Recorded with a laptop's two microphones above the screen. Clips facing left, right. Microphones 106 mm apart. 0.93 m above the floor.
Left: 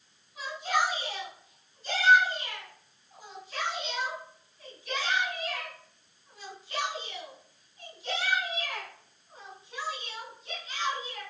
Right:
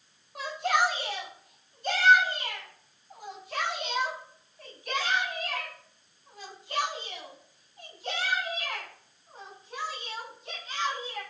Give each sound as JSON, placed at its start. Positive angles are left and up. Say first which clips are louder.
{"t": 0.3, "sound": "a shout", "louder": "right 2 dB", "side_deg": -70, "distance_m": 6.0}